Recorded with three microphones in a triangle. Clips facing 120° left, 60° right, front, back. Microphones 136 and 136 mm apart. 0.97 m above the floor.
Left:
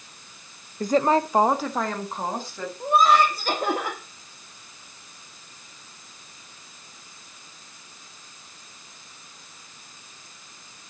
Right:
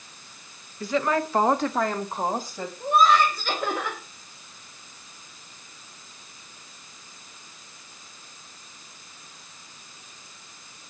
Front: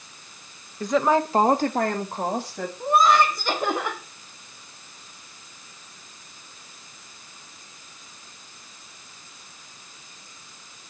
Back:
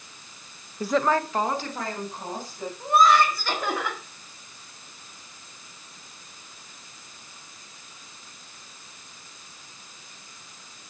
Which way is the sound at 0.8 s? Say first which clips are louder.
Left 4 dB, front 2 dB; 110° left.